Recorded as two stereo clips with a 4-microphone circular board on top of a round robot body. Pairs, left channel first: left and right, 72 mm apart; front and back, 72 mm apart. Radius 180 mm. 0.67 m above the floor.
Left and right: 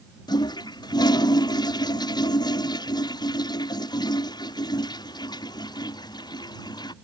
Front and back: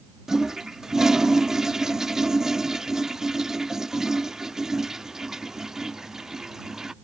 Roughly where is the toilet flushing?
Left.